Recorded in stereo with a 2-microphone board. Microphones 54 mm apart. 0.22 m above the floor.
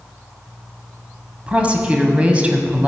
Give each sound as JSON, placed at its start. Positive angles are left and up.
{"t": 1.5, "sound": "a woman speaking", "side_deg": -25, "distance_m": 1.0}